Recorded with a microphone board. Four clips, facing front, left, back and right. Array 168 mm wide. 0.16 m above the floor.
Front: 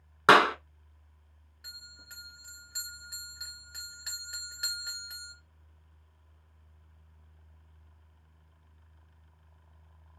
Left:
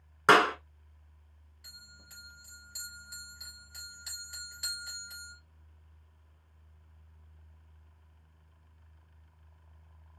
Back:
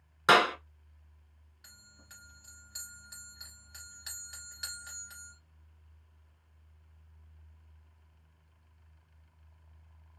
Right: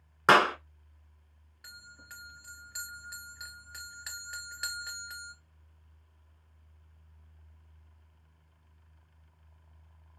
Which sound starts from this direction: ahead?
A clap, at 0.3 s.